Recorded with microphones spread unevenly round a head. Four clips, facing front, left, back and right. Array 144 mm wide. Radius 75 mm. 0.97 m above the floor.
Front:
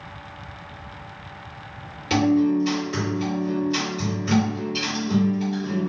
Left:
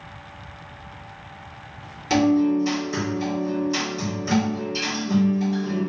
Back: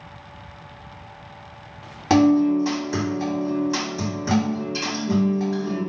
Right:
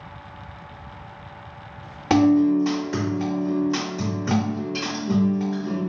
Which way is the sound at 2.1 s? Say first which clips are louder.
Right 2 dB, back 3 dB; 140° right.